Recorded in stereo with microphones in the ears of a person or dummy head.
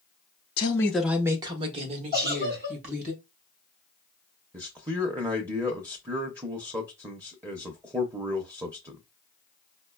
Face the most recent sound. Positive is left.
turn(degrees=-15)  # may be behind; listen again after turning